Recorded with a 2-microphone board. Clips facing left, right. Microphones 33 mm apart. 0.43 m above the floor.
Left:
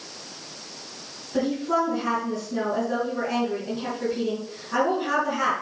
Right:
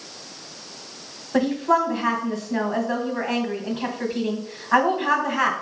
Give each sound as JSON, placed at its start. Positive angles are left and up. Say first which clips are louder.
{"t": 1.3, "sound": "a woman speaking", "louder": "right 4 dB", "side_deg": -60, "distance_m": 3.0}